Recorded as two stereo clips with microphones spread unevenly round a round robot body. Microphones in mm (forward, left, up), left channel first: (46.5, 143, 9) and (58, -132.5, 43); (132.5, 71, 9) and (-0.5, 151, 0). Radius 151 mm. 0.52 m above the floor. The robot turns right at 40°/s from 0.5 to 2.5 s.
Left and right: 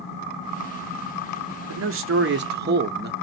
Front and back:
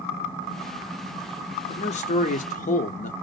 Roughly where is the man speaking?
Right.